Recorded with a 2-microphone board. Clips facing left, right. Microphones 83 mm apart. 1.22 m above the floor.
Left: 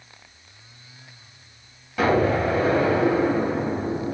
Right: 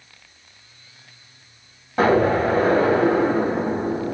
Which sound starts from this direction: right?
An explosion, at 2.0 s.